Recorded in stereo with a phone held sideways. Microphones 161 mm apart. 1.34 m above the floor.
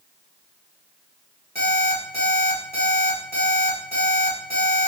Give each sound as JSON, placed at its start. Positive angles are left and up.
{"t": 1.6, "sound": "an alarm clock", "side_deg": -75, "distance_m": 2.0}